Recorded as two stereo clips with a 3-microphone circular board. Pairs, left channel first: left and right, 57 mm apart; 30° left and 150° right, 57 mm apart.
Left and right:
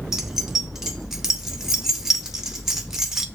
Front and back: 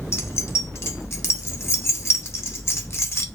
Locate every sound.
0.1 s keys jangling: 10° right, 0.6 m